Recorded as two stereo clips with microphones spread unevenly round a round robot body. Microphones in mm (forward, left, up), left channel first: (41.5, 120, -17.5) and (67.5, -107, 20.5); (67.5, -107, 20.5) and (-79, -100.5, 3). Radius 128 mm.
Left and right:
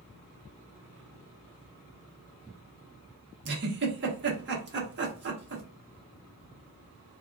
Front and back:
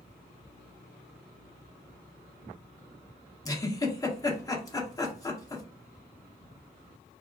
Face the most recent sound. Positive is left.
turn(degrees=-65)